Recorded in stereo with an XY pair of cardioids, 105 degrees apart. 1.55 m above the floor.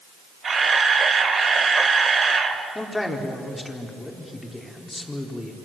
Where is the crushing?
I don't hear crushing.